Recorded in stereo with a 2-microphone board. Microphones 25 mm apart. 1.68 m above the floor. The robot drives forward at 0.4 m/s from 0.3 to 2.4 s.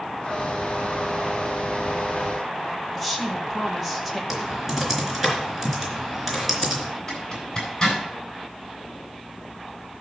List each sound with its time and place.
3.0 s a woman speaking: centre (ahead or behind), 1.8 m
4.3 s typing on a keyboard: 10° right (ahead or behind), 3.5 m
7.1 s a zipper: 20° left (ahead or behind), 8 m